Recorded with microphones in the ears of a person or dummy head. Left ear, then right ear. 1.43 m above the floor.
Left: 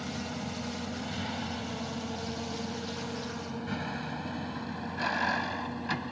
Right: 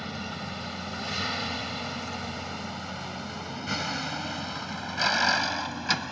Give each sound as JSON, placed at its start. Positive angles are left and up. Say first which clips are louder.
{"t": 0.0, "sound": "a vehicle", "louder": "right 2 dB", "side_deg": -50}